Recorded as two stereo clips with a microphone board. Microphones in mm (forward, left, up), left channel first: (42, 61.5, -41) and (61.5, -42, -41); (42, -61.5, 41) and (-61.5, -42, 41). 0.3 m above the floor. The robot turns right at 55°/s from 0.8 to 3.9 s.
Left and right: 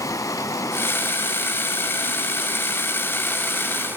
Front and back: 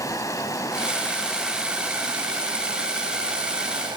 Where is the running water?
45° left, 0.8 m; by 4.0 s 145° right, 0.8 m.